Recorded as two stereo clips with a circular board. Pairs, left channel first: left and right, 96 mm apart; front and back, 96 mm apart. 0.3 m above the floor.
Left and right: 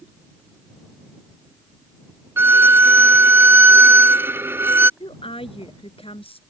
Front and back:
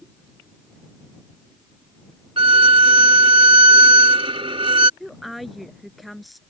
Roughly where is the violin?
Behind right.